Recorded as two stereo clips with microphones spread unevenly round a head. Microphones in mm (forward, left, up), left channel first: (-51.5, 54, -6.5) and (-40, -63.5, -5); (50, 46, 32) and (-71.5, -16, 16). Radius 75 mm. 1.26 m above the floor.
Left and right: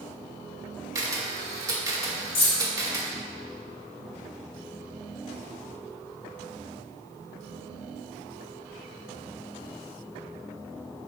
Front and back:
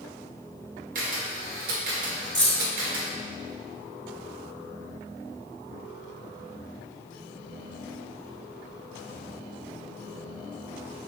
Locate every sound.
0.9 s a camera shutter: 135° right, 1.1 m
2.4 s keys jangling: 105° left, 1.5 m